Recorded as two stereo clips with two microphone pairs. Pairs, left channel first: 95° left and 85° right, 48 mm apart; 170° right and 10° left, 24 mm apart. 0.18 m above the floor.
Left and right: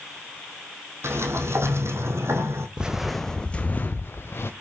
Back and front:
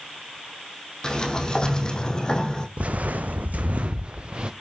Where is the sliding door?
110° right, 2 m.